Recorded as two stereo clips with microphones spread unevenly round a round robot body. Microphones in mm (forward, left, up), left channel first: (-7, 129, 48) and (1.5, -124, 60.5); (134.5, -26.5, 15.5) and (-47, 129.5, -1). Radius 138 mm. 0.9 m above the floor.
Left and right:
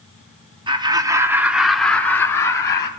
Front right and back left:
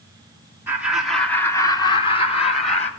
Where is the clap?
I don't hear a clap.